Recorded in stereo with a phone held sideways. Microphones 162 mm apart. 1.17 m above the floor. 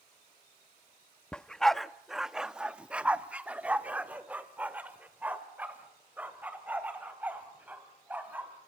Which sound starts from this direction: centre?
A dog barking, at 1.3 s.